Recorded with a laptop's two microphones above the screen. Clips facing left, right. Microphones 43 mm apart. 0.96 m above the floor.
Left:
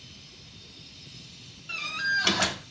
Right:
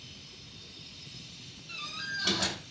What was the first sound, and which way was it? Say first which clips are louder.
A door slam: left 10 dB; 80° left.